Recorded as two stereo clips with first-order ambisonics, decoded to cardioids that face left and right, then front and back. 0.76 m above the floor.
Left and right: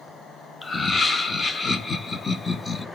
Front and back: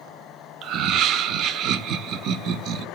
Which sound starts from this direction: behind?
Laughter, at 0.6 s.